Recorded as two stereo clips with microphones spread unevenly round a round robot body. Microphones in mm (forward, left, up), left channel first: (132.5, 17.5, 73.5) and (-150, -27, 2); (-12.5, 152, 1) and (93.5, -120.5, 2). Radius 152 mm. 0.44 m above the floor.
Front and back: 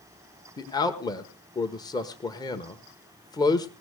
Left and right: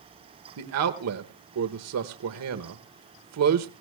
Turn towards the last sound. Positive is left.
turn(degrees=-75)